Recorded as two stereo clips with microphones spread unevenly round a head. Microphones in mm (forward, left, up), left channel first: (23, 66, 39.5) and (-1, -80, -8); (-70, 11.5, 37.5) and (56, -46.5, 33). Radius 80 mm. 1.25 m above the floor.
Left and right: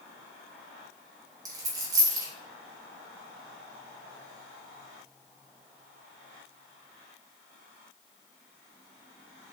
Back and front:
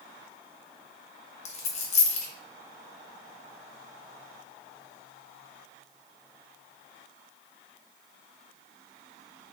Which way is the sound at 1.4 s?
Straight behind.